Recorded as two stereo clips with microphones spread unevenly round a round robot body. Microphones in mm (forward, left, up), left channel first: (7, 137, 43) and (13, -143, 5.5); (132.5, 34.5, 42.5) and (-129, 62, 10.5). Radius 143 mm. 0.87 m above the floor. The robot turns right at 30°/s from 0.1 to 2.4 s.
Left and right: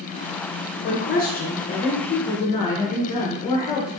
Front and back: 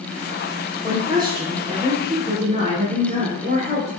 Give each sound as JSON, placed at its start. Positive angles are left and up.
{"t": 0.8, "sound": "a woman speaking", "azimuth_deg": 120, "distance_m": 0.7}